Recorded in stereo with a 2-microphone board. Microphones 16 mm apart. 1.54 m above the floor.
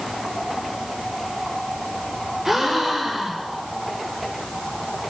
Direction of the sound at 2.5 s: 20° right (ahead or behind).